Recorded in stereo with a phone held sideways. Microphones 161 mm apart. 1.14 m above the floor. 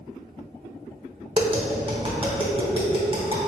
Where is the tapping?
35° right (ahead or behind), 0.8 m.